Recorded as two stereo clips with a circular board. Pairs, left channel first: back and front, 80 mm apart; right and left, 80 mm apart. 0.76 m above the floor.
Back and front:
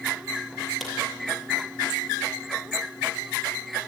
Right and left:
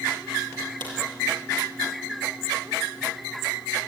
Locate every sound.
0.8 s a crack: 90° left, 7 m